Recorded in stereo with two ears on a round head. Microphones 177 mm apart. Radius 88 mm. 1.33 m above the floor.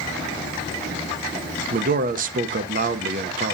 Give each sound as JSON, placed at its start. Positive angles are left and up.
{"t": 1.7, "sound": "a man speaking", "side_deg": -45, "distance_m": 0.9}